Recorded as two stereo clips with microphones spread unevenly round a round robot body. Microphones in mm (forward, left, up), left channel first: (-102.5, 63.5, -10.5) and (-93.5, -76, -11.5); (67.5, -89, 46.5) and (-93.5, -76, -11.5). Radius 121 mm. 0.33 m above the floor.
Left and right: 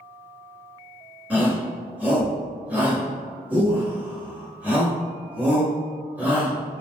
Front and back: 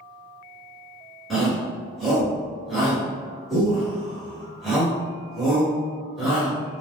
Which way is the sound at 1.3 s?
145° right.